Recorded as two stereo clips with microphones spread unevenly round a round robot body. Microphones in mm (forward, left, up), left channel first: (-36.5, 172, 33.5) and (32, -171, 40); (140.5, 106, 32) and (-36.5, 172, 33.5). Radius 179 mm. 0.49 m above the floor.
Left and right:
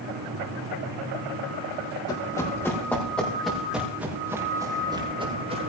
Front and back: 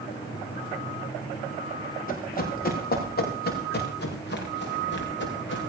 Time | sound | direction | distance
2.1 | running footsteps | 20° left | 7 m